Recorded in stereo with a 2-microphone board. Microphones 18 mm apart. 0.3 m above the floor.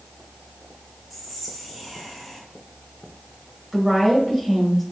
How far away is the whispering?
About 1.9 m.